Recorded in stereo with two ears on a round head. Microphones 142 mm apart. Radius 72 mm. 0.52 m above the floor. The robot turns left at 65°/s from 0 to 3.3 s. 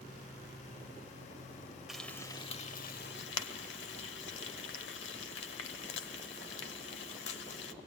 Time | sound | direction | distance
1.9 | frying | 5° right (ahead or behind) | 0.9 m